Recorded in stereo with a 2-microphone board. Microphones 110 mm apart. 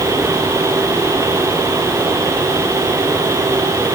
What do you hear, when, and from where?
Only background noise.